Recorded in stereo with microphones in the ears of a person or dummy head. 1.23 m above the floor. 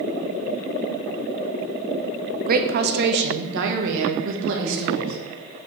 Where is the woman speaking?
40° right (ahead or behind), 0.7 m; by 5.2 s 65° right (ahead or behind), 1.9 m.